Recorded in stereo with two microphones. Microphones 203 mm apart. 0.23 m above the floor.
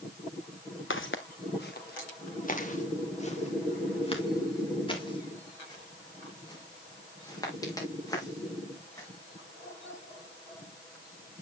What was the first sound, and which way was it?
Footsteps, 75° left (ahead or behind).